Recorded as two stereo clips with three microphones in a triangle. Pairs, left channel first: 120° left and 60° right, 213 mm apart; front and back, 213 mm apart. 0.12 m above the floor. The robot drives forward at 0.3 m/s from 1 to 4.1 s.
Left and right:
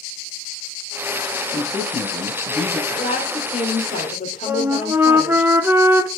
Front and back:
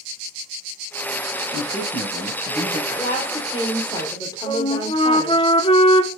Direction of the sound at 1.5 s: 25° left.